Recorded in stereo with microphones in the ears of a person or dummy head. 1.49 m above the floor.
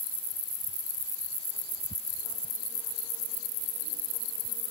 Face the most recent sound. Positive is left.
No sound to turn to.